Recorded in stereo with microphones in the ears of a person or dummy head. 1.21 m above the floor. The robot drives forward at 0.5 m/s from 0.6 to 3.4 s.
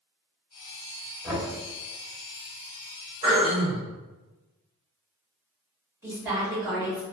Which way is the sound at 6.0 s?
15° right (ahead or behind).